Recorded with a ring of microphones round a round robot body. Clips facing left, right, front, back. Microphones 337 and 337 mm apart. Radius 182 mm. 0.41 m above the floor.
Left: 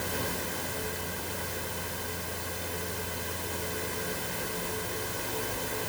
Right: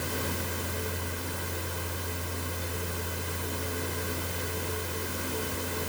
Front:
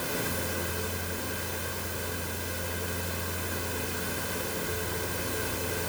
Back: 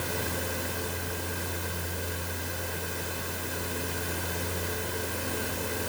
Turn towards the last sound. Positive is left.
No sound to turn to.